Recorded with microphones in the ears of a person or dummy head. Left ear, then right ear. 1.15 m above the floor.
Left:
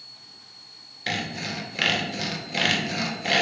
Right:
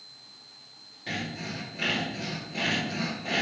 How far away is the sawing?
About 0.7 m.